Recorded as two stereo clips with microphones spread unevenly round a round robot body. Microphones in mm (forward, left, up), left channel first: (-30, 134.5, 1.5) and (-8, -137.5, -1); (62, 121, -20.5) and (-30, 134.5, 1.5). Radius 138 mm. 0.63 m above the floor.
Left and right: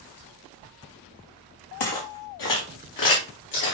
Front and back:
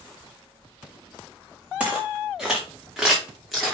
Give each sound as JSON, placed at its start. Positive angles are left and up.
{"t": 1.8, "sound": "footsteps", "azimuth_deg": 95, "distance_m": 3.5}